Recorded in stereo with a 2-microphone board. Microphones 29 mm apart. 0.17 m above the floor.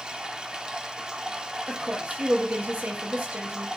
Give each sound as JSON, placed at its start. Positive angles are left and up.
{"t": 0.0, "sound": "running water", "side_deg": -25, "distance_m": 0.9}
{"t": 1.7, "sound": "a woman speaking", "side_deg": -70, "distance_m": 3.5}